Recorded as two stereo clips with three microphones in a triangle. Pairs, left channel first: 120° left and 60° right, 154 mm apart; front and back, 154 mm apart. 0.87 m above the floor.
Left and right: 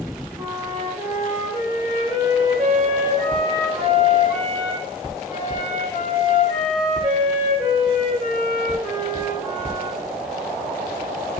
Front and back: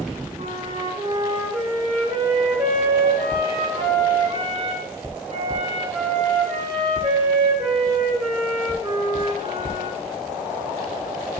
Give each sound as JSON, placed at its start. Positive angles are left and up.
{"t": 0.4, "sound": "a flute", "azimuth_deg": -150, "distance_m": 1.6}